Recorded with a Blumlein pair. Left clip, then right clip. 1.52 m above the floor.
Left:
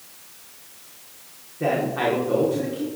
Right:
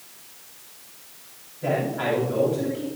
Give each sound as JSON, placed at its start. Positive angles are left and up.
{"t": 1.6, "sound": "a man speaking", "azimuth_deg": 45, "distance_m": 4.5}